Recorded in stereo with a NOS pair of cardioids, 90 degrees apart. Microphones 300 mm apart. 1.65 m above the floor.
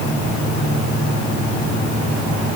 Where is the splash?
No splash in this recording.